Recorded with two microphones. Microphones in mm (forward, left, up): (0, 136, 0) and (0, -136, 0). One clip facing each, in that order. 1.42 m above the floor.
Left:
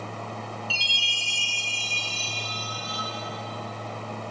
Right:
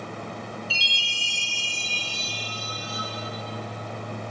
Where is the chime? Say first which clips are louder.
Right 1 dB; 30° left (ahead or behind), 5.5 m.